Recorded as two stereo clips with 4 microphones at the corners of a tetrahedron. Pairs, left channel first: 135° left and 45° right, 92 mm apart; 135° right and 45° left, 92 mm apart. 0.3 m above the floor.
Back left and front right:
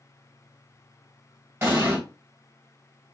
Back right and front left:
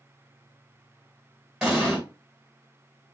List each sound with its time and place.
1.6 s an explosion: 30° right, 1.5 m